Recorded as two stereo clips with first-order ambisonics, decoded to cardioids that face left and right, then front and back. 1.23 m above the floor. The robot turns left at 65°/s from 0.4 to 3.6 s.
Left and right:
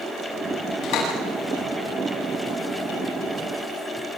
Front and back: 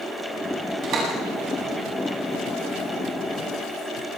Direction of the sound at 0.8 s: 135° left.